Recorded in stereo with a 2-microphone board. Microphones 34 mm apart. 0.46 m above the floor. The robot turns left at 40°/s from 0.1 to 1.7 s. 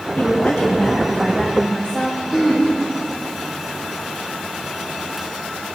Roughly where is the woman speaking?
Ahead left.